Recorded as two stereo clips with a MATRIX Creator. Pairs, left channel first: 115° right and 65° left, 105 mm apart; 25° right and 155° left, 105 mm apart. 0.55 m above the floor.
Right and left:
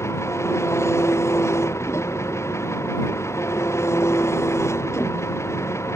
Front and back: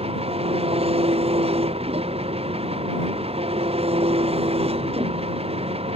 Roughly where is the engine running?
Behind.